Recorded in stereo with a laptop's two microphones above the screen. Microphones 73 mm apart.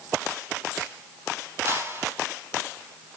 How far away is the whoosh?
About 2.5 m.